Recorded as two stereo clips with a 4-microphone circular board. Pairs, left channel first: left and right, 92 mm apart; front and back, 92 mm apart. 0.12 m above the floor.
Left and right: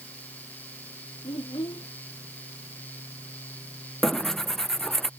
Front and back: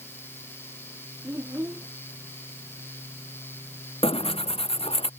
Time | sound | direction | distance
1.2 | a child speaking | 115° left | ?
4.0 | tearing paper | 5° left | ?